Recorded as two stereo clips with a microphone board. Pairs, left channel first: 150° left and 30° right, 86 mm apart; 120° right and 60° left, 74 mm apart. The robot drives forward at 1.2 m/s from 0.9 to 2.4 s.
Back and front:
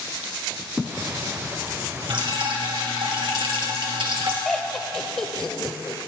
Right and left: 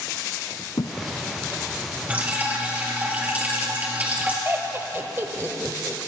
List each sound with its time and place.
0.8 s a thud: 115° right, 0.6 m; by 1.0 s 120° right, 0.6 m
2.1 s dripping: 10° right, 3 m
4.5 s laughter: 70° left, 1.1 m